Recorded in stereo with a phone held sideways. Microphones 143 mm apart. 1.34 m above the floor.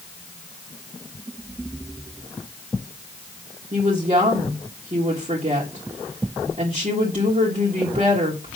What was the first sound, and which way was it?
A woman speaking, 50° right (ahead or behind).